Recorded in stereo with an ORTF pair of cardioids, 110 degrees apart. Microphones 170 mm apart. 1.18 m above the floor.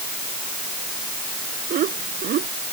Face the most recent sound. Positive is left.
turn(degrees=-60)